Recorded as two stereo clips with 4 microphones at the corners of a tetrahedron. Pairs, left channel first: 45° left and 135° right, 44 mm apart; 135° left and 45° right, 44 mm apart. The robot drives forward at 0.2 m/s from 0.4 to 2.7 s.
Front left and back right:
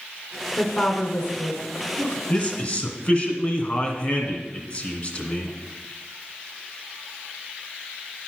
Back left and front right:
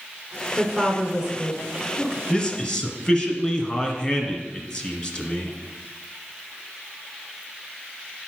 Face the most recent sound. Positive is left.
turn(degrees=90)